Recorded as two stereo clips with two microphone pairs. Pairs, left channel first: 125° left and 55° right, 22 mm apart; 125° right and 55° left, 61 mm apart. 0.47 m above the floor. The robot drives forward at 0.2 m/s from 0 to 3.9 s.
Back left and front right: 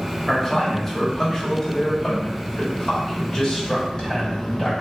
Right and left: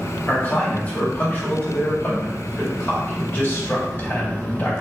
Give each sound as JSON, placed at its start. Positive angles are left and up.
{"t": 0.3, "sound": "a man speaking", "azimuth_deg": -165, "distance_m": 1.0}